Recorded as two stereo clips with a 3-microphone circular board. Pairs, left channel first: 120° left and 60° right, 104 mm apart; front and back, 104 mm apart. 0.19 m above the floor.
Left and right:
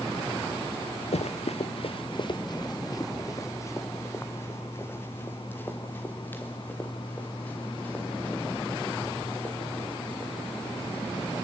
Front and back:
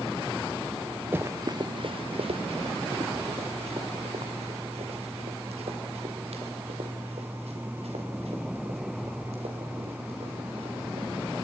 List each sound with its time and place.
1.1 s running footsteps: 110° left, 0.8 m; by 11.1 s 165° right, 8 m